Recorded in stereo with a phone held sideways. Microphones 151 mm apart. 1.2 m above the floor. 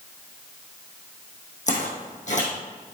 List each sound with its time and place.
1.7 s footsteps: 55° left (ahead or behind), 3.5 m